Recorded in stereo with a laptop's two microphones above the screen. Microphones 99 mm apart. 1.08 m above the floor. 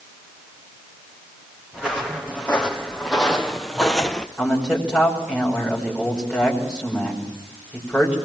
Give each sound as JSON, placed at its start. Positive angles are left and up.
{"t": 1.7, "sound": "footsteps", "side_deg": -10, "distance_m": 3.0}
{"t": 4.4, "sound": "a man speaking", "side_deg": -10, "distance_m": 5.0}